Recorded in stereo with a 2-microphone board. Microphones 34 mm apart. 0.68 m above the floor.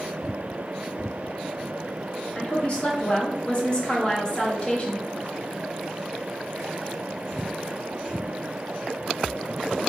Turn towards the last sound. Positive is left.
turn(degrees=30)  # may be behind; listen again after turning